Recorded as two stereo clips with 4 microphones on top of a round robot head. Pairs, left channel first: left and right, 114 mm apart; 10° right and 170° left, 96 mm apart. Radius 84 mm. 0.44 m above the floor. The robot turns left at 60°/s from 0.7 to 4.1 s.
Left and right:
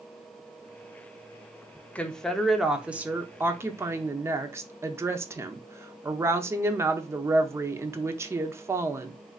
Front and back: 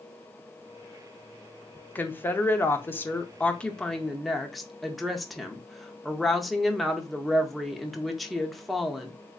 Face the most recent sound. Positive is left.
turn(degrees=-100)